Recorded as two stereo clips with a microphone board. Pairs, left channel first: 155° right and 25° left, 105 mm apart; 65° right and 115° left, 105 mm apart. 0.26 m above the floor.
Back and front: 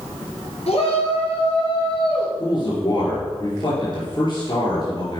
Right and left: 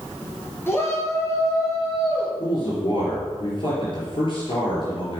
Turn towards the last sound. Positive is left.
turn(degrees=-110)